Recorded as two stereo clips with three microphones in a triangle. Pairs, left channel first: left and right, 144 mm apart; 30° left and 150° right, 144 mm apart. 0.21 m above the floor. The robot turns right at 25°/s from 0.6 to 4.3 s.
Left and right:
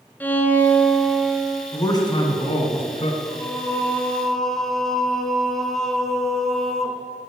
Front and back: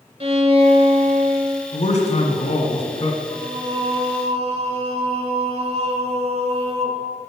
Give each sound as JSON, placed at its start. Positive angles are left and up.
{"t": 0.2, "sound": "a violin", "azimuth_deg": 165, "distance_m": 0.8}
{"t": 1.7, "sound": "a man speaking", "azimuth_deg": 30, "distance_m": 1.8}
{"t": 3.3, "sound": "singing", "azimuth_deg": 150, "distance_m": 0.7}